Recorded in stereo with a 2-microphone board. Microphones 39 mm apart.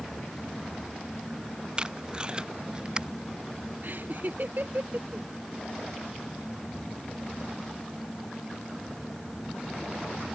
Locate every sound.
1.8 s tape being pulled: 25° right (ahead or behind)
3.8 s laughter: 55° right (ahead or behind)